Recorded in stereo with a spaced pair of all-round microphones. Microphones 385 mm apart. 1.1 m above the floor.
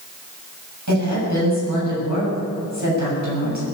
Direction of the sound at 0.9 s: 50° right (ahead or behind).